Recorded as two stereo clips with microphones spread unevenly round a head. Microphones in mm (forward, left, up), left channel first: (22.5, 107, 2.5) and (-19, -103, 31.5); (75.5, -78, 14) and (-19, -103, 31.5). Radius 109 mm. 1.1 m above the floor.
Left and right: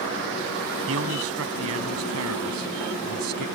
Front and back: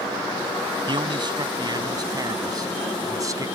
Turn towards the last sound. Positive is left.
turn(degrees=-110)